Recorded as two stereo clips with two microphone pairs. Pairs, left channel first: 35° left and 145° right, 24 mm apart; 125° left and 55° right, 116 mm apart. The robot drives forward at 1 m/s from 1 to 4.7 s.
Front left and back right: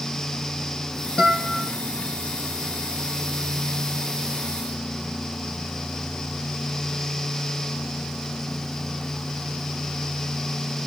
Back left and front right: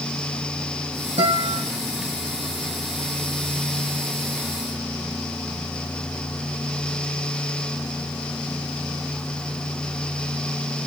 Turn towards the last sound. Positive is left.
turn(degrees=-95)